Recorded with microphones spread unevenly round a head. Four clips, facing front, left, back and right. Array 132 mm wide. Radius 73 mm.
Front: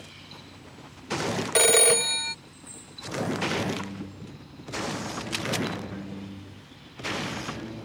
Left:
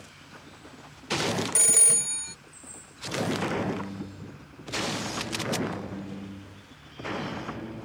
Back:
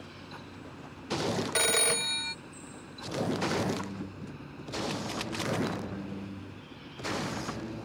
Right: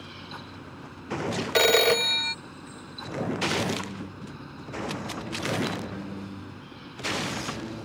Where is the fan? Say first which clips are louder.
Right 7 dB, back 2 dB; 120° right.